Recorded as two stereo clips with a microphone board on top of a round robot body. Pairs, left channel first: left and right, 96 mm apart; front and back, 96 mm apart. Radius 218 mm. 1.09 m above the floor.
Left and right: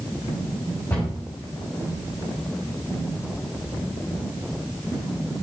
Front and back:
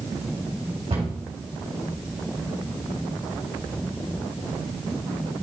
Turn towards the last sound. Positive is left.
turn(degrees=160)